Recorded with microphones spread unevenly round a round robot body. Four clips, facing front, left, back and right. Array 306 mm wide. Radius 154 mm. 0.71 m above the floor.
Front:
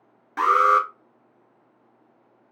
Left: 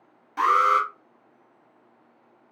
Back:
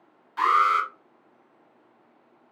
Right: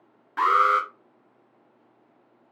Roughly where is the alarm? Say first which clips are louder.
Even, front 3 dB; ahead.